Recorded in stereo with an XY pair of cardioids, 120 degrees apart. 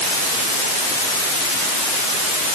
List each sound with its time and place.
Only background noise.